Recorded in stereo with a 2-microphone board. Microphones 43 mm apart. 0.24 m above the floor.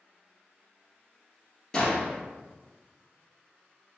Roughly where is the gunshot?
Centre.